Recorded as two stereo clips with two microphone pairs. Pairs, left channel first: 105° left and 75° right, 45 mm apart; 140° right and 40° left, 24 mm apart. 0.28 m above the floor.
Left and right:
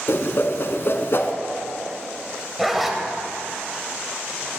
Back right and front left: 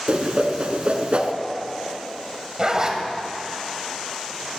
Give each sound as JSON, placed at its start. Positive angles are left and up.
{"t": 0.1, "sound": "a whoosh", "azimuth_deg": 75, "distance_m": 0.6}
{"t": 2.6, "sound": "a zipper", "azimuth_deg": 10, "distance_m": 0.9}